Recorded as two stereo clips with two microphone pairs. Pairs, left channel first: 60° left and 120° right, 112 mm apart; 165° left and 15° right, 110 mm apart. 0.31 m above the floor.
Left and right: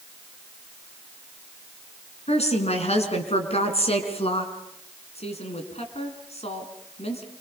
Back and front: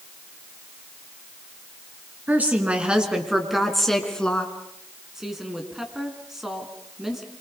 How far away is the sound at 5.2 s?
About 4 m.